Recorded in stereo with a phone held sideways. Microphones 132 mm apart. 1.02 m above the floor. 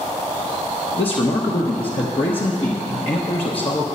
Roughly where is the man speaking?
Left.